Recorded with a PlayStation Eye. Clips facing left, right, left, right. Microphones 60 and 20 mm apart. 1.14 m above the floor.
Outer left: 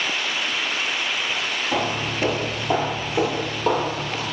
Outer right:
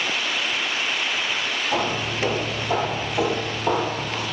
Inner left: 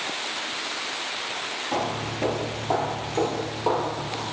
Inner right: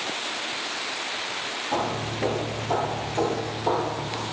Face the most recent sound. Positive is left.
turn(degrees=60)  # may be behind; listen again after turning